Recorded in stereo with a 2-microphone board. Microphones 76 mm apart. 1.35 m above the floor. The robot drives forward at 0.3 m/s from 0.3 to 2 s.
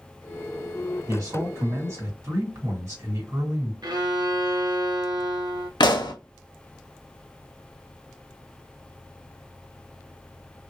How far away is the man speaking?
About 2 m.